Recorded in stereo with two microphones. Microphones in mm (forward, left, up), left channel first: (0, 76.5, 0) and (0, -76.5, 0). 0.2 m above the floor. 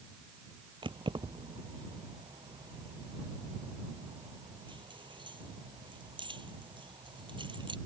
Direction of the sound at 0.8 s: 30° right (ahead or behind).